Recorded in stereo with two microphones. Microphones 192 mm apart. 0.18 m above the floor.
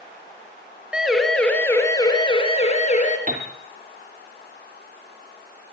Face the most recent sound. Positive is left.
turn(degrees=-40)  # may be behind; listen again after turning